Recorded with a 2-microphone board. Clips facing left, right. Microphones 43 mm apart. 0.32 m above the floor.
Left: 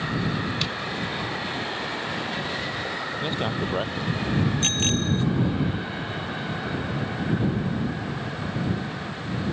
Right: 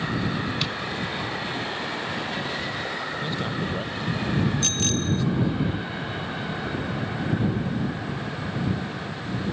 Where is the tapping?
Centre (ahead or behind).